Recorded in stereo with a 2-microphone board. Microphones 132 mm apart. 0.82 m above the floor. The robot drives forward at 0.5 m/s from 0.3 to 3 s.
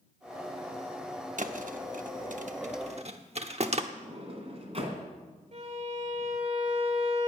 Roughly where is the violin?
Right.